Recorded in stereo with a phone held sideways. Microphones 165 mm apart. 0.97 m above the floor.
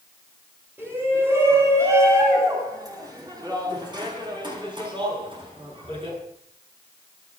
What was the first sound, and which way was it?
A shout, 15° right (ahead or behind).